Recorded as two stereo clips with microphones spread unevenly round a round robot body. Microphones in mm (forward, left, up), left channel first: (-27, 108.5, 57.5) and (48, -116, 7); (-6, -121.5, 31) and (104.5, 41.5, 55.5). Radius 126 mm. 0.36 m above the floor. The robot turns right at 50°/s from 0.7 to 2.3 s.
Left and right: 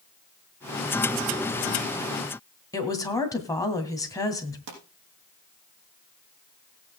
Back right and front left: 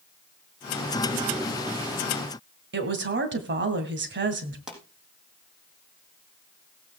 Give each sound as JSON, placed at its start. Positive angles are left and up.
{"t": 2.7, "sound": "a woman speaking", "azimuth_deg": 30, "distance_m": 2.5}
{"t": 4.7, "sound": "a pop", "azimuth_deg": -30, "distance_m": 4.5}